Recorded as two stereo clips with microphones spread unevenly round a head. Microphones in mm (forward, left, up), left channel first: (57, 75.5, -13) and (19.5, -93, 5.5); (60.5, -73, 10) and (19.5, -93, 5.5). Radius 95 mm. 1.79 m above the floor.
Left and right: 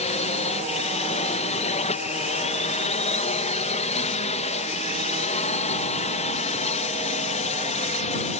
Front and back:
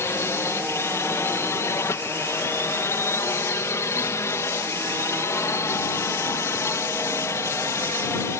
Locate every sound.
0.0 s a drone: 30° left